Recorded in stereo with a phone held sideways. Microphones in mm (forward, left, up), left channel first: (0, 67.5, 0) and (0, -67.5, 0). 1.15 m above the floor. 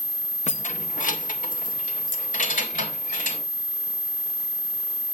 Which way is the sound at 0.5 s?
60° left (ahead or behind).